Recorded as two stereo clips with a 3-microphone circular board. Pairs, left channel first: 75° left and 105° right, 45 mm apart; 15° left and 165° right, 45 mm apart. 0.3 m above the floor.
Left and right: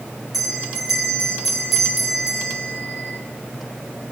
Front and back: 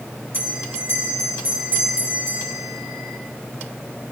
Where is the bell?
170° left, 5.5 m.